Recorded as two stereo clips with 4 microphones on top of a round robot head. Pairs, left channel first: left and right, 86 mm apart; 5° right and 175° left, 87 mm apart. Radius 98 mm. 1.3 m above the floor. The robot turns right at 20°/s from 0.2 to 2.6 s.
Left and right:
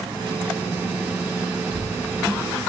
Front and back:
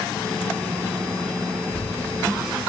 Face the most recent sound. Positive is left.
turn(degrees=-55)